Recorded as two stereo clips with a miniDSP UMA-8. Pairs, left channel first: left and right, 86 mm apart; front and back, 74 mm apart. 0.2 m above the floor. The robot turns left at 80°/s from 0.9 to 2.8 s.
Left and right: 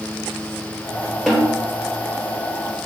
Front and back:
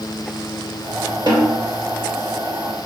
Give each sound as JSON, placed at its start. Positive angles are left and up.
{"t": 1.3, "sound": "a snare drum", "azimuth_deg": 175, "distance_m": 2.0}